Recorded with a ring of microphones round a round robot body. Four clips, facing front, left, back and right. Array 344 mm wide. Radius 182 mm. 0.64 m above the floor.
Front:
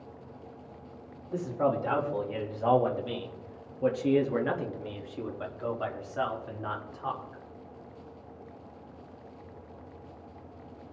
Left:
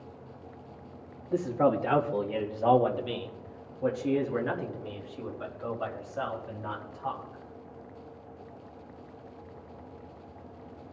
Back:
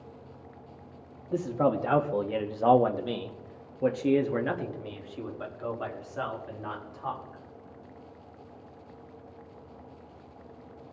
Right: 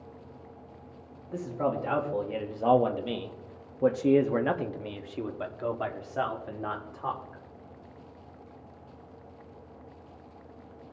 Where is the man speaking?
145° left, 1.4 m; by 7.4 s 80° right, 2.5 m.